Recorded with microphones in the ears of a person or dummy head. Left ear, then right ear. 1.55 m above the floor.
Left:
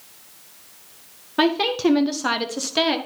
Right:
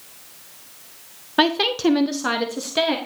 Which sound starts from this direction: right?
A woman speaking, at 1.4 s.